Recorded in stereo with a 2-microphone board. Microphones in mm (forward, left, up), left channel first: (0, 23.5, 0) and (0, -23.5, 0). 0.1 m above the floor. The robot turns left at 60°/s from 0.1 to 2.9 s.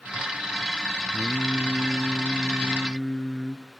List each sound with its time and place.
1.1 s singing: 100° right, 0.7 m; by 3.6 s 155° left, 0.7 m